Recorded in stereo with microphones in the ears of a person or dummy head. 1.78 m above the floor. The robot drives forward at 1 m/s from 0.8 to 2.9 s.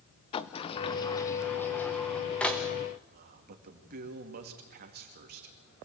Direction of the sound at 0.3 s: 25° left (ahead or behind).